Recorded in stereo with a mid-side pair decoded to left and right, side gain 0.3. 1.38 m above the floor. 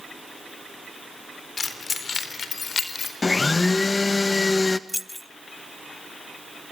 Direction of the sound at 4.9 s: 10° left.